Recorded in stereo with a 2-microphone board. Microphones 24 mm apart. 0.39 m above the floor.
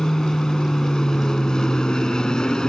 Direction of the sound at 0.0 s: 25° left (ahead or behind).